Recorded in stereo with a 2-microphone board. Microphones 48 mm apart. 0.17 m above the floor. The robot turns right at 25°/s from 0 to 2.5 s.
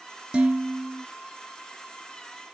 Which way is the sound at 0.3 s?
20° right (ahead or behind).